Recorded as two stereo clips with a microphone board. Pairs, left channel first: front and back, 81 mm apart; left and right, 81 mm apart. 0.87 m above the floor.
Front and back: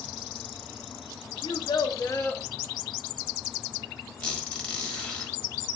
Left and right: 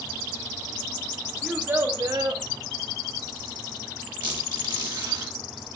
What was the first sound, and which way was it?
A child speaking, 5° right.